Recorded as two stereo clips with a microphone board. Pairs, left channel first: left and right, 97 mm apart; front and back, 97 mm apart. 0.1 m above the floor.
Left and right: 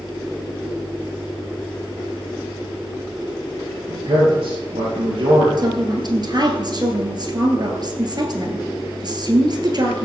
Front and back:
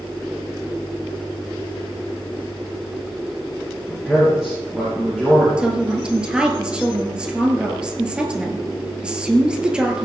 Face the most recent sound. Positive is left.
turn(degrees=-105)